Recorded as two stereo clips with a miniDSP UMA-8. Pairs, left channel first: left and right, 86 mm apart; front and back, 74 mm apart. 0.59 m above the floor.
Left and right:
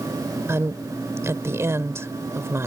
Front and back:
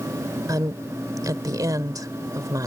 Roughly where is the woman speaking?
Behind right.